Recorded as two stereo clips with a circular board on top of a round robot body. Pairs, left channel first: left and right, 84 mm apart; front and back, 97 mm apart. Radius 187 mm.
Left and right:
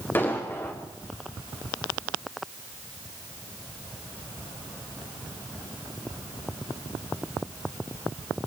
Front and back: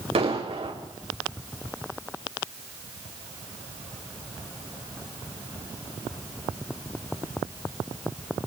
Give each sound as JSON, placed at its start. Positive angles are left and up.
{"t": 0.1, "sound": "an explosion", "azimuth_deg": 160, "distance_m": 5.5}